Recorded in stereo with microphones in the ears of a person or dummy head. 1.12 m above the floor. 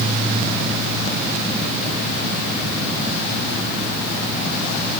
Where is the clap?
No clap in this recording.